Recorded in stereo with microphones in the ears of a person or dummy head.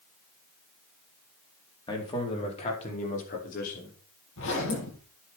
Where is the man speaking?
20° left (ahead or behind), 4 m; by 3.9 s 45° left (ahead or behind), 5.5 m.